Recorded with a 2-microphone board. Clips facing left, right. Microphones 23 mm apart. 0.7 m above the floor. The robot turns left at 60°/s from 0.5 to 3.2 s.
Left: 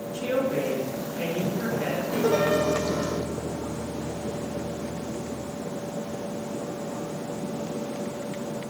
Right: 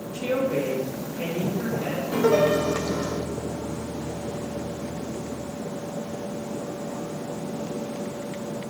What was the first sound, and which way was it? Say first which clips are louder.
A woman speaking: right 1 dB; 155° right.